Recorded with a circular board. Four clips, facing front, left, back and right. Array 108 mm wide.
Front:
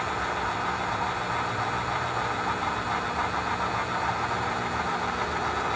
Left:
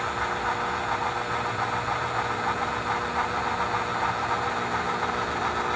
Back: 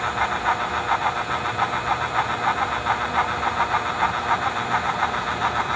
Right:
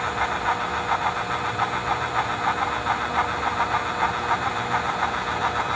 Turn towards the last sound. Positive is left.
No sound to turn to.